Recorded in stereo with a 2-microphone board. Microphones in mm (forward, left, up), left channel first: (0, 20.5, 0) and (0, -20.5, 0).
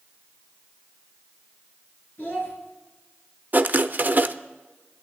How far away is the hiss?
I don't hear a hiss.